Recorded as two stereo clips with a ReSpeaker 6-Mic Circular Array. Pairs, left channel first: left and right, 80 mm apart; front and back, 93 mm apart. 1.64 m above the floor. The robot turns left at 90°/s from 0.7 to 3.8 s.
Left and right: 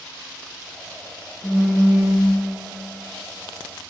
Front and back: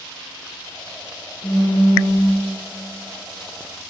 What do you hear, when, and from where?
1.4 s a phone buzzing: 45° left, 2.0 m; by 2.2 s 25° right, 2.0 m